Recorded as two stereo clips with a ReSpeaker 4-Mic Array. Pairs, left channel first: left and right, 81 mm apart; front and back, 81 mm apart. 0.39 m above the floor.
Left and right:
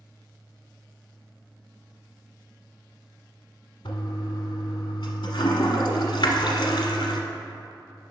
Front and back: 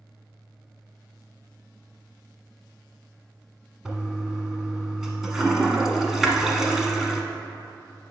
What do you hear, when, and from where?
3.9 s a toilet flushing: 95° left, 0.9 m